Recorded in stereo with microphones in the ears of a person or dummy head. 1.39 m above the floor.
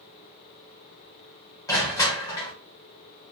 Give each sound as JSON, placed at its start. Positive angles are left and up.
{"t": 1.7, "sound": "crushing", "side_deg": 15, "distance_m": 0.7}